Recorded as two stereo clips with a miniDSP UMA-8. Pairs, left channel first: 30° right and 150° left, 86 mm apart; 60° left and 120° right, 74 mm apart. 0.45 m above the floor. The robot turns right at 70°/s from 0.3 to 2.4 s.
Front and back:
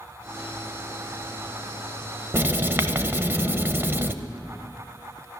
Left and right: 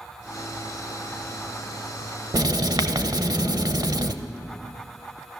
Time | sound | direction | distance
2.3 | writing | 150° right | 0.7 m